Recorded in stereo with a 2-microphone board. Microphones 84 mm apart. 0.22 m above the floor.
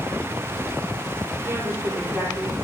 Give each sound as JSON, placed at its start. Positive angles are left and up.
{"t": 1.4, "sound": "a woman speaking", "side_deg": -30, "distance_m": 5.5}